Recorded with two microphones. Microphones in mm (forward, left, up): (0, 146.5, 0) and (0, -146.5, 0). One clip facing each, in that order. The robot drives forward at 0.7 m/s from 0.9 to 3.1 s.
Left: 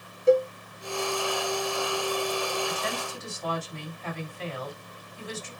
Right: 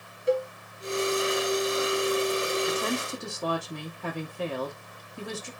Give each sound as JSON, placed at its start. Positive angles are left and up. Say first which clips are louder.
{"t": 0.3, "sound": "a cowbell", "louder": "left 6 dB", "side_deg": 55, "distance_m": 1.5}
{"t": 2.7, "sound": "a woman speaking", "louder": "right 5 dB", "side_deg": -70, "distance_m": 5.5}